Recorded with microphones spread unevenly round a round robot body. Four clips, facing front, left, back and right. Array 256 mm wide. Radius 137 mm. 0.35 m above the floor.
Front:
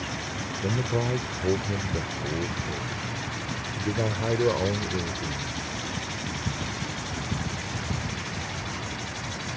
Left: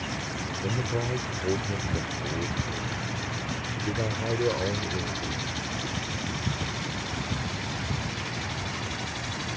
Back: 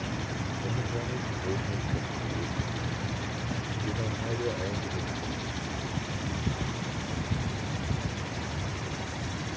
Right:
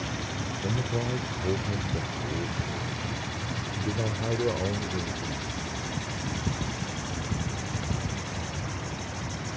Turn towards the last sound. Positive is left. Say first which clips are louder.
# left 1 dB, front 10 dB
turn(degrees=5)